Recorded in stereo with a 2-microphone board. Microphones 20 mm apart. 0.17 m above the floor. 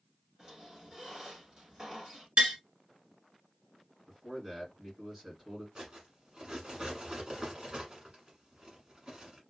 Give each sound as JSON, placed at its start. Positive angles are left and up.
{"t": 0.4, "sound": "a squeak", "side_deg": -50, "distance_m": 1.5}
{"t": 2.4, "sound": "tapping", "side_deg": -70, "distance_m": 2.0}
{"t": 4.1, "sound": "a man speaking", "side_deg": -30, "distance_m": 2.0}
{"t": 5.8, "sound": "cutlery clinking", "side_deg": -40, "distance_m": 1.1}